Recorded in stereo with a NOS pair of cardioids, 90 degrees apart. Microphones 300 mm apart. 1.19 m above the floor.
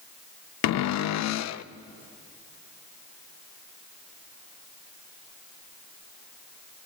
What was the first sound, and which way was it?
A cupboard door, 65° left.